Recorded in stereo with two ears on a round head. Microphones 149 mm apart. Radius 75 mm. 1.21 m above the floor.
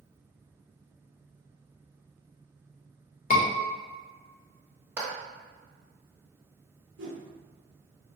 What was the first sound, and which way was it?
A scream, 50° left (ahead or behind).